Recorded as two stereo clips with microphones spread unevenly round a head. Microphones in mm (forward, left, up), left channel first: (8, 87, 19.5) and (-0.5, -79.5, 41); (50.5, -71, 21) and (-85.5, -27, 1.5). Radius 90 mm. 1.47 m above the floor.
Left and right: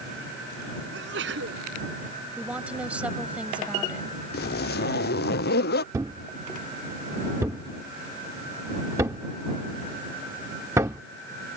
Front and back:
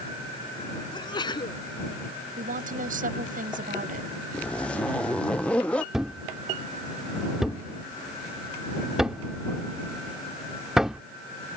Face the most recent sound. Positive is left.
turn(degrees=-95)